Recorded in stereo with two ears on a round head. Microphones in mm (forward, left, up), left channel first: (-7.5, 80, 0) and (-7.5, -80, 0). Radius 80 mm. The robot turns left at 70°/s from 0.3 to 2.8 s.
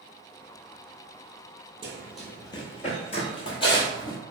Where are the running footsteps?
30° right (ahead or behind), 0.8 m; by 4.2 s 20° left (ahead or behind), 0.9 m.